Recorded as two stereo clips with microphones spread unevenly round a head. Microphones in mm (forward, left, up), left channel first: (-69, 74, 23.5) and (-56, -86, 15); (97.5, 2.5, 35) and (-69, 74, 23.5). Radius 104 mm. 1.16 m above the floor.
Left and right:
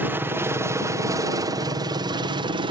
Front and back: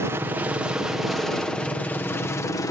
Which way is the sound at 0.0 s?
145° right.